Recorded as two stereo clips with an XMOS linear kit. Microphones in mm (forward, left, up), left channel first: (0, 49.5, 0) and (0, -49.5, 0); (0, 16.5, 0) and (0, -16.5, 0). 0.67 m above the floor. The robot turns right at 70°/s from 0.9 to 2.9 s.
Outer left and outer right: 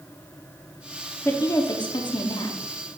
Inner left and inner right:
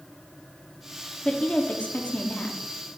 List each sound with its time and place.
1.2 s a woman speaking: 35° left, 1.0 m; by 2.6 s 125° left, 1.0 m